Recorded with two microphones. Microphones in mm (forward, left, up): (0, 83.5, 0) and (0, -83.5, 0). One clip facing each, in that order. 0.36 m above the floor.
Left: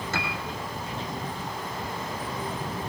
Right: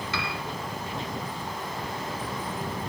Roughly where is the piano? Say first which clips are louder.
Left 2 dB; left.